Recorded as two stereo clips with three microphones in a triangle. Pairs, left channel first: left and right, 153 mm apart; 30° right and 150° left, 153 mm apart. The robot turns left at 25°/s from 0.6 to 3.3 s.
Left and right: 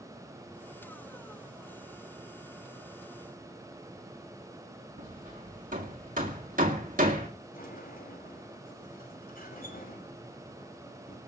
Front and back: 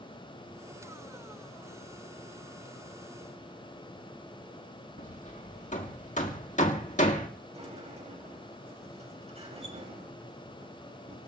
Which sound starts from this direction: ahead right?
Hammering, at 5.0 s.